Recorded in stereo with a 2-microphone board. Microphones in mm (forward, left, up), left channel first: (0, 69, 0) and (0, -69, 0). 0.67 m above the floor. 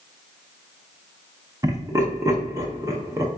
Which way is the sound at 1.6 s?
25° right (ahead or behind).